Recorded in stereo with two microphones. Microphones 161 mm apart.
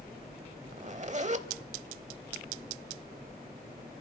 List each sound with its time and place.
0.7 s a zipper: 45° right (ahead or behind), 0.8 m